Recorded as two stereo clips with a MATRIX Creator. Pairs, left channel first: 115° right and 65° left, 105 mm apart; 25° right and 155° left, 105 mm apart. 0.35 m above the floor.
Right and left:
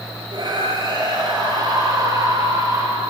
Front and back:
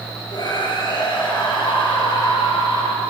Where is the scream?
25° left, 7.5 m; by 3.0 s 10° left, 7.5 m.